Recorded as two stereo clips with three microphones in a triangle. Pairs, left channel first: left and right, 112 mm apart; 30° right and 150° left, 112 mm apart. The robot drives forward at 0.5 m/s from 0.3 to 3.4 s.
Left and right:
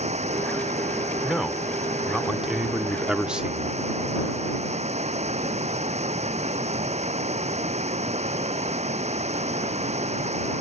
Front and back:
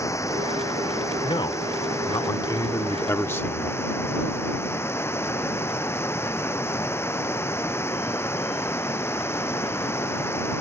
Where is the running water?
95° right; by 10.6 s 100° right.